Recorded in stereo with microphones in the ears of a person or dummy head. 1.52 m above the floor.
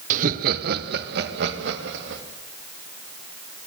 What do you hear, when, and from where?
0.1 s laughter: 50° right (ahead or behind), 1.1 m; by 2.2 s 75° right (ahead or behind), 3.5 m